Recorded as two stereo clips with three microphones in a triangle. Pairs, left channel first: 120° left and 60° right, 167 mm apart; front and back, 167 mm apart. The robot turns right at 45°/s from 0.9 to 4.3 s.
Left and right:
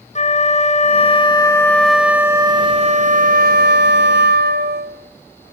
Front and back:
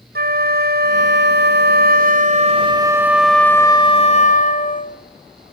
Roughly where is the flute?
Behind.